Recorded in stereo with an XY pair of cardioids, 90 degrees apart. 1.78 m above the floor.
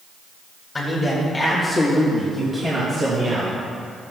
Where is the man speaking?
25° left, 3 m; by 3.5 s 45° right, 3 m.